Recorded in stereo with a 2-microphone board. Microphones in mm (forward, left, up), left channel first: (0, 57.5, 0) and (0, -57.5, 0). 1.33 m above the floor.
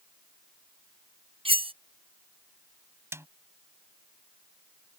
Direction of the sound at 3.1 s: 20° right (ahead or behind).